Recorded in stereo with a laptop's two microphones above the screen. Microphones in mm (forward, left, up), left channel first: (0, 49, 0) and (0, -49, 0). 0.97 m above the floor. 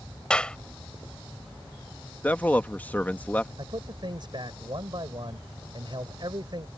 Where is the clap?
10° left (ahead or behind).